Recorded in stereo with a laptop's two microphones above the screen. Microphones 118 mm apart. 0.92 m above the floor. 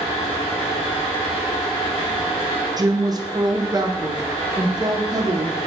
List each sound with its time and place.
0.0 s a fan: 55° left (ahead or behind), 2.5 m
2.8 s a woman speaking: 35° right (ahead or behind), 0.6 m